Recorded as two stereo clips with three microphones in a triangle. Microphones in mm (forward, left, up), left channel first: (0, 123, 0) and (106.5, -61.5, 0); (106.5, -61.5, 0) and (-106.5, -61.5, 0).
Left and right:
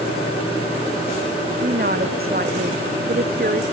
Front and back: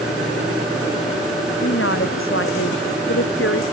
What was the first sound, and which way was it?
A woman speaking, 15° right.